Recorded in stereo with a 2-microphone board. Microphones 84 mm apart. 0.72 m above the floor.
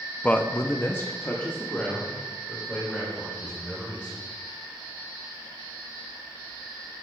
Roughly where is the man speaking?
Centre.